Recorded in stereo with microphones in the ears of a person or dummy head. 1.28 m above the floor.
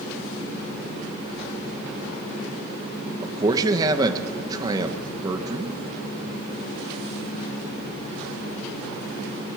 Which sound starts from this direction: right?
A man speaking, at 3.2 s.